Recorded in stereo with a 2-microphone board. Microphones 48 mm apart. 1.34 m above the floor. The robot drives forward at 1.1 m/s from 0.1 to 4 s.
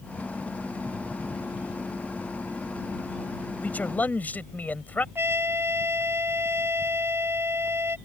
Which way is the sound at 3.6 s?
35° left (ahead or behind).